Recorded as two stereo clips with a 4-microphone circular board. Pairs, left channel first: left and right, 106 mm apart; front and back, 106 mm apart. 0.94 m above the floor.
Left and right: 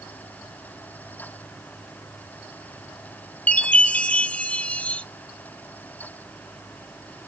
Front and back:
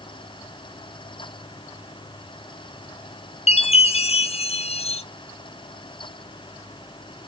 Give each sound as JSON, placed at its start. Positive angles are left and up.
{"t": 3.5, "sound": "a chime", "azimuth_deg": 10, "distance_m": 0.6}